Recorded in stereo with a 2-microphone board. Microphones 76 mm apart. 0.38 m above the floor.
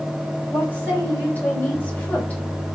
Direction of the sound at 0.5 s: 25° left (ahead or behind).